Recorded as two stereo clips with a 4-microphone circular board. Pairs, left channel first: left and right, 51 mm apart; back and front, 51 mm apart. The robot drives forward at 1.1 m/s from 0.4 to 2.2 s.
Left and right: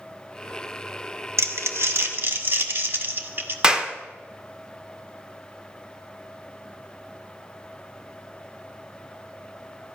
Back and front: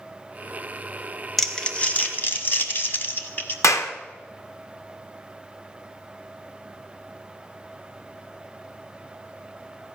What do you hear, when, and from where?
1.4 s crumpling: 95° right, 1.1 m; by 3.5 s 130° right, 1.5 m
3.6 s a clap: 165° right, 1.0 m